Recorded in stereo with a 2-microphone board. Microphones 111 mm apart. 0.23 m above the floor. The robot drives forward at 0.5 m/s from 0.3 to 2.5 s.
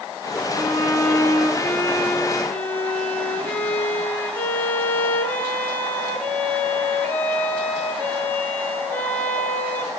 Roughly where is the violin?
Left.